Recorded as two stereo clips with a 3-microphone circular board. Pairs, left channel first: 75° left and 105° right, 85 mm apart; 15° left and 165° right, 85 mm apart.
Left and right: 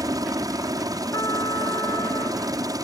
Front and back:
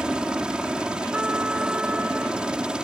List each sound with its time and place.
0.0 s a helicopter: 90° right
1.1 s a trumpet: 120° left